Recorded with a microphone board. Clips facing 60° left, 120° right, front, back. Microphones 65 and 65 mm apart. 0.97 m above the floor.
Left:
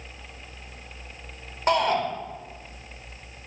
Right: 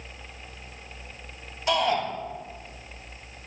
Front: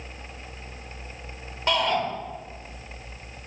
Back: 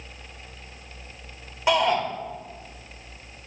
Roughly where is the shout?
Left.